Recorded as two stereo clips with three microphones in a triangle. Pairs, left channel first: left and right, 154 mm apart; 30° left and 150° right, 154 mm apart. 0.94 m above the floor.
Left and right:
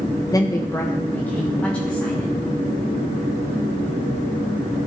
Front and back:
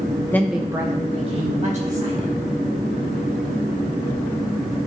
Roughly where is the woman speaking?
Left.